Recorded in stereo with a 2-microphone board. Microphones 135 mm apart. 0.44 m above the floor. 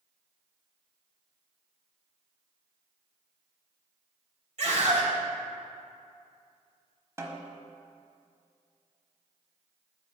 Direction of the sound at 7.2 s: 20° right (ahead or behind).